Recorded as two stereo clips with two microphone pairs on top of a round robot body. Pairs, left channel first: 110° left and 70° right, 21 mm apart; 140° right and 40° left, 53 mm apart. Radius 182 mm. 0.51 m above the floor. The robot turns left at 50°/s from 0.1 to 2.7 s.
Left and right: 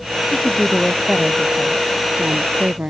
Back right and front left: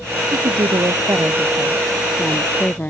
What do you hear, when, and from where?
0.3 s a woman speaking: 45° left; by 2.9 s 75° right